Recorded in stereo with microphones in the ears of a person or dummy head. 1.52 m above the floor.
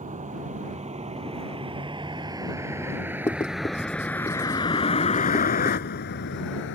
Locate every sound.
0.0 s a vehicle: 35° right (ahead or behind); by 6.8 s 65° left (ahead or behind)
3.3 s writing: 15° left (ahead or behind)